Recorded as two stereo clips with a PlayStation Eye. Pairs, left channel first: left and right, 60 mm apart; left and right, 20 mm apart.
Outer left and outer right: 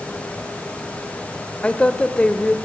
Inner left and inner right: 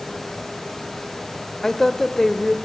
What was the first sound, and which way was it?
A woman speaking, 20° left (ahead or behind).